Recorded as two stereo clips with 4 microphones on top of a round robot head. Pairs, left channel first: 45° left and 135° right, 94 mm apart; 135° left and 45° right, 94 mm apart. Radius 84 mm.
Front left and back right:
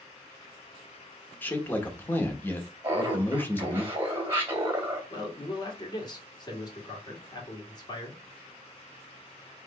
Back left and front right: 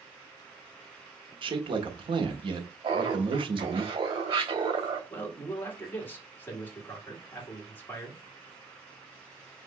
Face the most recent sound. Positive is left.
turn(degrees=70)